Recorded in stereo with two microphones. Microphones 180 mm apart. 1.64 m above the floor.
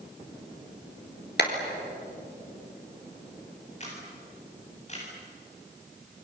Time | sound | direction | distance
1.4 | a clap | 70° left (ahead or behind) | 4 m
3.8 | a camera shutter | 40° left (ahead or behind) | 8.5 m